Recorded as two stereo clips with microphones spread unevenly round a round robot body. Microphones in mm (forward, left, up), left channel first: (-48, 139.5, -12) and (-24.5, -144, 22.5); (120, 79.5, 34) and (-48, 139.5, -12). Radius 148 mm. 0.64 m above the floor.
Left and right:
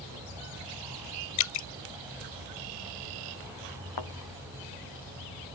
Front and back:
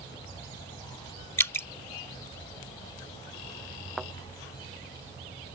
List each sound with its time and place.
1.4 s dripping: 60° left
4.0 s a thud: 75° left